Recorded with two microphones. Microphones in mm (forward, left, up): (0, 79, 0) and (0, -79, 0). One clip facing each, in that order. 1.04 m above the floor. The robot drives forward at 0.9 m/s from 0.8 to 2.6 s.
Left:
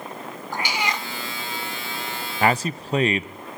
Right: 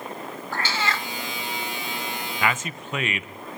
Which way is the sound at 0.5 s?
15° left (ahead or behind).